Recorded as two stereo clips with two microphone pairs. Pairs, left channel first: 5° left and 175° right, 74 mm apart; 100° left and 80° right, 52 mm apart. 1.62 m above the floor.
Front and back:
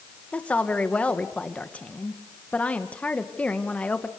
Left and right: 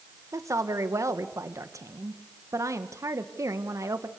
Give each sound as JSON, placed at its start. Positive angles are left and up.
{"t": 0.3, "sound": "a woman speaking", "azimuth_deg": -65, "distance_m": 1.8}